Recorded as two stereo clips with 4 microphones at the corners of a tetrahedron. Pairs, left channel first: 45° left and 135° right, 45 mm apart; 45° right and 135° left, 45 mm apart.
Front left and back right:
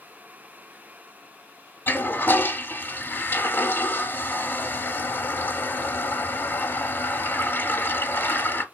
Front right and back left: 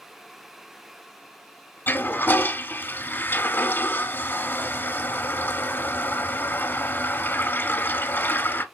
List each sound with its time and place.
1.9 s a toilet flushing: straight ahead, 0.7 m